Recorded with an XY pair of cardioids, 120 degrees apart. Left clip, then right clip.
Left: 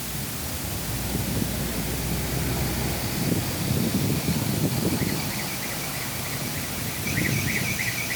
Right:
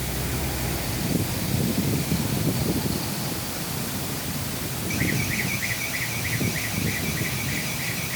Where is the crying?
I don't hear crying.